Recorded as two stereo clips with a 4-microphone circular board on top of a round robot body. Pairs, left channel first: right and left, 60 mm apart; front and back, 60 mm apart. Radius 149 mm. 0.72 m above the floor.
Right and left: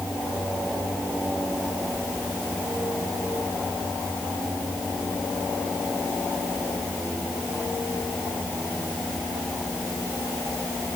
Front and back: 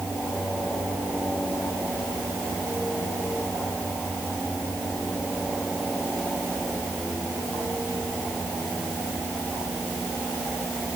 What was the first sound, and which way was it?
Only background noise.